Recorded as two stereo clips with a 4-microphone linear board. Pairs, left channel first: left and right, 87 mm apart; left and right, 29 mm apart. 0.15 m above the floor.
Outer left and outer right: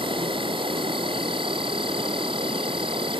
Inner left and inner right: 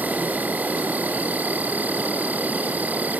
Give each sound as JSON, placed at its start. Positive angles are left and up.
{"t": 0.0, "sound": "an insect", "side_deg": -80, "distance_m": 0.8}